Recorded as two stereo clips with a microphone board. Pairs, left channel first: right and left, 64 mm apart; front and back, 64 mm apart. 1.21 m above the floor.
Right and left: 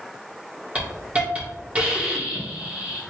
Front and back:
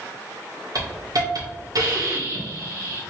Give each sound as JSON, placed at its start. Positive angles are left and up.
{"t": 0.8, "sound": "a hiss", "azimuth_deg": 160, "distance_m": 1.6}